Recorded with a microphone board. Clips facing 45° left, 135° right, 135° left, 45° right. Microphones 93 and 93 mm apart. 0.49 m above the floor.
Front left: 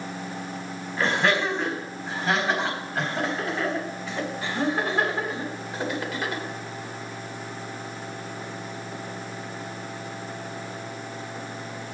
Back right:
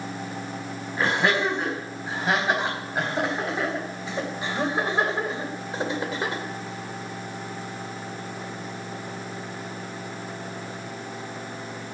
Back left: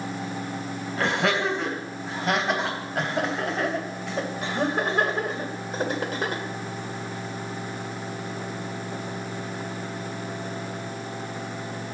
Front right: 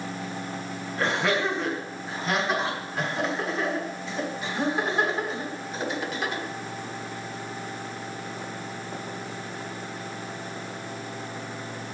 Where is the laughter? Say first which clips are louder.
Even, back left 1 dB; 150° left, 4.5 m; by 6.4 s 170° left, 2.0 m.